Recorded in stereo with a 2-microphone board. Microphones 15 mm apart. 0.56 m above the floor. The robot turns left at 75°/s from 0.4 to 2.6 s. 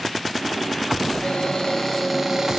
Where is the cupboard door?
80° left, 0.7 m; by 2.6 s 35° right, 0.7 m.